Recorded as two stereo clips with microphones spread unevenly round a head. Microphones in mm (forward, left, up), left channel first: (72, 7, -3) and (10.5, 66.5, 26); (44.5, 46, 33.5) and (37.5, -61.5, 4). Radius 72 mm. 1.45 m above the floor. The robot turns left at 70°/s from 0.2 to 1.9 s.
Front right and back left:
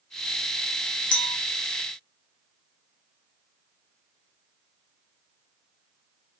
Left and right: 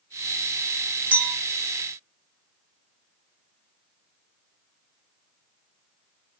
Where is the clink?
10° right, 0.9 m; by 1.3 s 25° right, 0.9 m.